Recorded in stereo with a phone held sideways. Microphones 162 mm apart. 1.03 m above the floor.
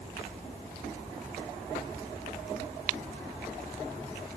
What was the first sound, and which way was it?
Only background noise.